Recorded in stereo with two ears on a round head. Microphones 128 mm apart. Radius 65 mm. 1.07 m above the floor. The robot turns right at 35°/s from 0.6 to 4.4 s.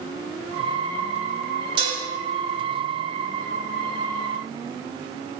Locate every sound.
1.8 s dishes clattering: 35° right (ahead or behind), 1.4 m; by 2.0 s 25° right (ahead or behind), 1.4 m